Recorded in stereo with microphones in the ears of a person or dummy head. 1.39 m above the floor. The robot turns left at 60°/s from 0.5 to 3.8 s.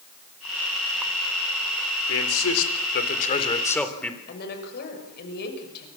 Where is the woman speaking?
55° left (ahead or behind), 6 m.